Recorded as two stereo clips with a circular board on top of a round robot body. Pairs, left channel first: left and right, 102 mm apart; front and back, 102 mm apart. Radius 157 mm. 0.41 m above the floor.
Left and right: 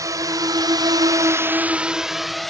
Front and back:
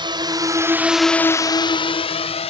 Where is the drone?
145° right; by 2.5 s straight ahead.